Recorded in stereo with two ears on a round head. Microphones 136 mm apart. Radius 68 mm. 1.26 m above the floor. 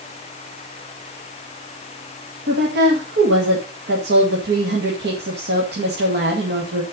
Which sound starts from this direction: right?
A woman speaking, at 2.5 s.